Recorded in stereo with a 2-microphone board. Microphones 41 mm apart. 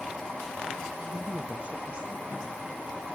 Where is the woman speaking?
10° right (ahead or behind), 0.7 m; by 3.2 s 20° right (ahead or behind), 3 m.